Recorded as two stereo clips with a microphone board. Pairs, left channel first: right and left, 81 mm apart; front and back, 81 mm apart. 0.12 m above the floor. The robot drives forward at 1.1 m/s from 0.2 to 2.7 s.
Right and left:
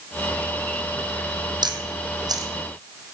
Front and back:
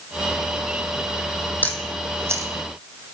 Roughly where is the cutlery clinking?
No cutlery clinking in this recording.